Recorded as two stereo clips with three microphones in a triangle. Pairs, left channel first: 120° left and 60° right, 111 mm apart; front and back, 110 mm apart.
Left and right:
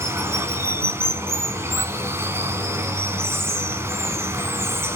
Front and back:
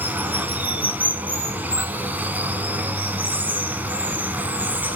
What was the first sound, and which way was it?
Running water, 115° right.